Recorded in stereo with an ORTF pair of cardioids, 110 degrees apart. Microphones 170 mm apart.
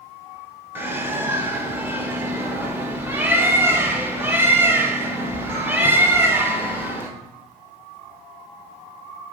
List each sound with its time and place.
0.8 s a bird: 10° right, 1.1 m